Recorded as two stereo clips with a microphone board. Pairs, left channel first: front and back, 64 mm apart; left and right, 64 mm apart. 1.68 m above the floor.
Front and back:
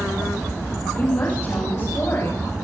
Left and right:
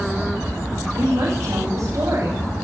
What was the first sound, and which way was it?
A woman speaking, 45° right.